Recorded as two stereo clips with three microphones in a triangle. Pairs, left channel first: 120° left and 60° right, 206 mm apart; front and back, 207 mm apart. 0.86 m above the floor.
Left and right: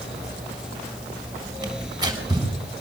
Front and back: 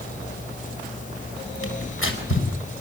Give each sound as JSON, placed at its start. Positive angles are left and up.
{"t": 1.6, "sound": "tearing paper", "azimuth_deg": 10, "distance_m": 7.0}